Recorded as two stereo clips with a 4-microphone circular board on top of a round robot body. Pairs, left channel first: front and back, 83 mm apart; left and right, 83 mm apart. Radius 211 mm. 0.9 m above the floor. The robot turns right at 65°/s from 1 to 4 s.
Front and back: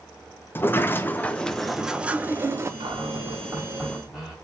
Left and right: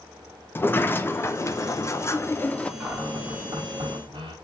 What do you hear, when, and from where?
0.6 s a sliding door: 45° left, 0.7 m; by 2.7 s 155° left, 0.7 m
2.8 s a cupboard door: 175° right, 1.3 m; by 4.3 s 95° right, 1.3 m